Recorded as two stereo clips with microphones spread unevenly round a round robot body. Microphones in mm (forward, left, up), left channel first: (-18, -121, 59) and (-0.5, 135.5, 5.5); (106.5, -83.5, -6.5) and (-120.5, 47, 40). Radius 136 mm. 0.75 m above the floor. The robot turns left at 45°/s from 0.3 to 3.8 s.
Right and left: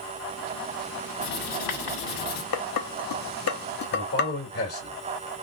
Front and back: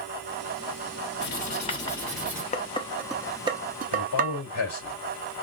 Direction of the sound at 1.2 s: 75° right.